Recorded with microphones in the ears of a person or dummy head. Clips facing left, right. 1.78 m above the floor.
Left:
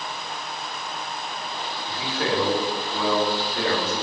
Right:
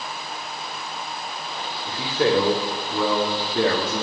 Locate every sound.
1.9 s a man speaking: 60° right (ahead or behind), 4 m; by 4.0 s 65° right (ahead or behind), 3 m